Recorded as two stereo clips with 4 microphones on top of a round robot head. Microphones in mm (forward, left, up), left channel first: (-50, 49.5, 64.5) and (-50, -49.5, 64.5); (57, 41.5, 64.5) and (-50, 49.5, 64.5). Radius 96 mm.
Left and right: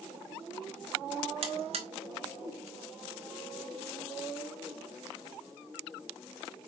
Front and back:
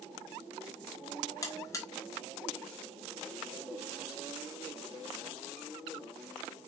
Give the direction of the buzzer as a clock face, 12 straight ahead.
2 o'clock.